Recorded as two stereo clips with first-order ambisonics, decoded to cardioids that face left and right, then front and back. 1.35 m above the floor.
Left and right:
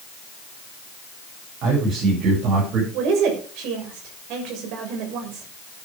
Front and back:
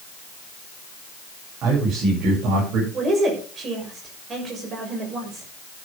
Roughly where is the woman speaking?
Behind right.